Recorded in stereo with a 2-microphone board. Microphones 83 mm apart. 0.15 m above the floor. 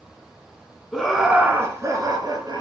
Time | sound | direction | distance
0.9 | laughter | 10° left (ahead or behind) | 1.4 m